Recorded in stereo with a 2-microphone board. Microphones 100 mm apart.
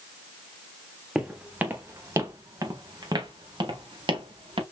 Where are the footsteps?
5° right (ahead or behind), 1.4 m; by 4.6 s 60° right (ahead or behind), 2 m.